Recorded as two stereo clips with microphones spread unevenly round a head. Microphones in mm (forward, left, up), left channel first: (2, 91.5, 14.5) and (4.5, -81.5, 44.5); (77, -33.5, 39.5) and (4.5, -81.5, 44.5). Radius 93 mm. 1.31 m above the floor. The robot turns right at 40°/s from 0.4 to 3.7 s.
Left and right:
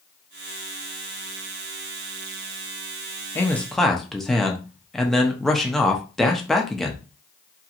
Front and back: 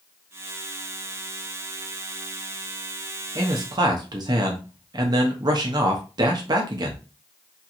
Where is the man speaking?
160° left, 0.6 m; by 7.0 s 175° left, 0.6 m.